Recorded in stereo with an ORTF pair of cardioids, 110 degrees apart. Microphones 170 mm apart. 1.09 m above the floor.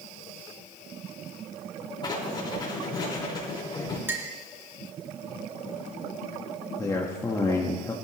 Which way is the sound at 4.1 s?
15° right.